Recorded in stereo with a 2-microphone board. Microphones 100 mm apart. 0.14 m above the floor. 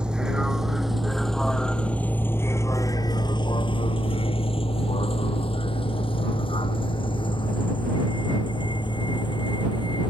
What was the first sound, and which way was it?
A vehicle, 10° right (ahead or behind).